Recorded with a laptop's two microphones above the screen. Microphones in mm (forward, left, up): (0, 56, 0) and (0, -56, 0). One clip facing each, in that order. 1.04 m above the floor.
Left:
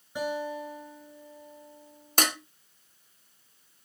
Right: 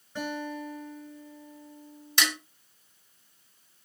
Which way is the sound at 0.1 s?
15° left (ahead or behind).